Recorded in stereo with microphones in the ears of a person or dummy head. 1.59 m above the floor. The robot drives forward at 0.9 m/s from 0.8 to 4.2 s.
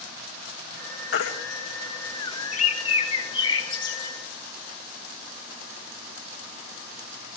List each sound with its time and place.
1.1 s a baby crying: 70° left (ahead or behind), 1.9 m; by 1.3 s 65° left (ahead or behind), 1.9 m
2.5 s a bird: 50° left (ahead or behind), 1.6 m; by 4.1 s 25° left (ahead or behind), 2.5 m